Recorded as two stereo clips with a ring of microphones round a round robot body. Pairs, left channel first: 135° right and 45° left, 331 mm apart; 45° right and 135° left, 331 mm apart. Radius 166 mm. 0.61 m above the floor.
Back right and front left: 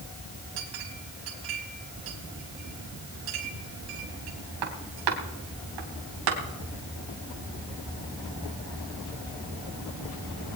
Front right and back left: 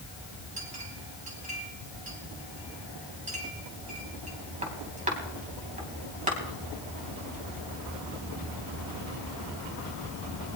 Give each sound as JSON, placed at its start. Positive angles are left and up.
{"t": 0.6, "sound": "a clink", "azimuth_deg": 65, "distance_m": 3.5}